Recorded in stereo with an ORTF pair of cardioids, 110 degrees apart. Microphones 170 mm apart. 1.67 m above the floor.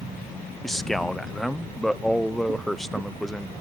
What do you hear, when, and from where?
0.6 s a man speaking: straight ahead, 0.7 m